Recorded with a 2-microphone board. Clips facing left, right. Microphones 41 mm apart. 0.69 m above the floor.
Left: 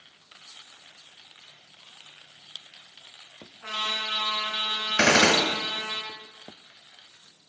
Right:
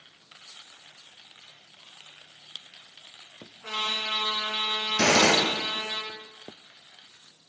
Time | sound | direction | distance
3.6 | a trumpet | 40° left (ahead or behind) | 4 m
5.0 | a gunshot | 70° left (ahead or behind) | 1.7 m